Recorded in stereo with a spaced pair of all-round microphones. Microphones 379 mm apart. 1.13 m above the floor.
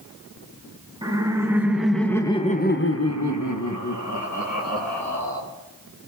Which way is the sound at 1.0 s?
10° right (ahead or behind).